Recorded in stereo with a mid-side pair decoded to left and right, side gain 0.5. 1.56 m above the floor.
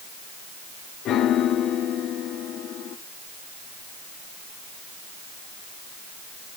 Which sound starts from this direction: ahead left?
A piano, at 1.1 s.